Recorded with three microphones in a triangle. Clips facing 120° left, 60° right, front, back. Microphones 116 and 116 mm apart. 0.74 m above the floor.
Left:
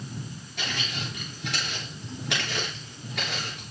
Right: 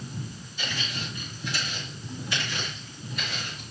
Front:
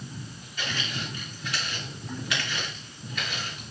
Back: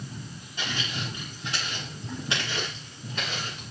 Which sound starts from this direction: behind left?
Footsteps, at 0.6 s.